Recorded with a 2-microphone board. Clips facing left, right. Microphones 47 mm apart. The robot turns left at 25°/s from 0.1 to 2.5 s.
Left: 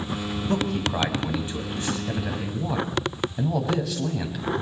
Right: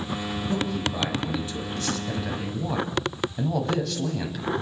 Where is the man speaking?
55° left, 6 m; by 4.5 s 5° left, 6 m.